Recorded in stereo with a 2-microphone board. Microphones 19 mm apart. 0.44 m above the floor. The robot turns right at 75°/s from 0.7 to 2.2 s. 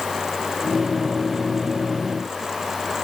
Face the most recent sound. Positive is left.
No sound to turn to.